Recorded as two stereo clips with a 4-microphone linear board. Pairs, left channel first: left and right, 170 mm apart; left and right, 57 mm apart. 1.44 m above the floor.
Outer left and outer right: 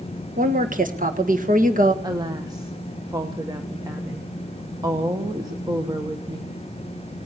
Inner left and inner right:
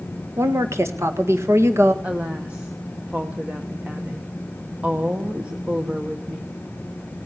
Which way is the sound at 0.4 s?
50° right (ahead or behind).